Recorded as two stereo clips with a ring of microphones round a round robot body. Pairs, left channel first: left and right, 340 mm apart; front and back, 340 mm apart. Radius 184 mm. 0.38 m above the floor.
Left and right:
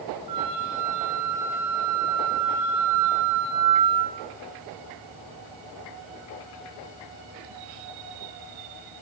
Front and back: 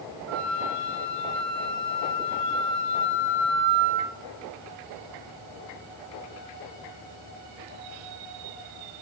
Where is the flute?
130° right, 6.5 m.